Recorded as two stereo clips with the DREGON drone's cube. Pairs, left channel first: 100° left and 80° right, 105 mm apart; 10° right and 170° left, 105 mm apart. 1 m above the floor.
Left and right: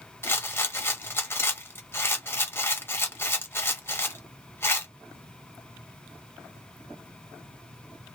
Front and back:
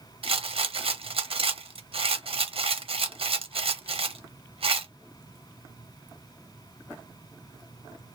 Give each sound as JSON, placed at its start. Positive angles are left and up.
{"t": 0.2, "sound": "a rattle", "azimuth_deg": 160, "distance_m": 0.6}